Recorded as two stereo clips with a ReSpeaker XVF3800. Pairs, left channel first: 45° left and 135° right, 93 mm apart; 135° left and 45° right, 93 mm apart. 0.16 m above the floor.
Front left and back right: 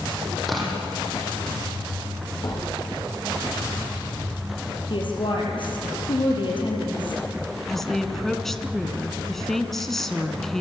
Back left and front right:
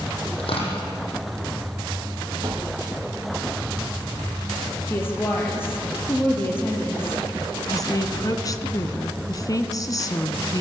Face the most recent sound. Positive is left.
turn(degrees=130)